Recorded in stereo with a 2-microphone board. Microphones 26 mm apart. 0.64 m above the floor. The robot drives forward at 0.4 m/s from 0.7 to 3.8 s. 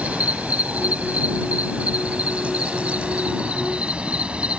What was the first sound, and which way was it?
An insect, 85° right.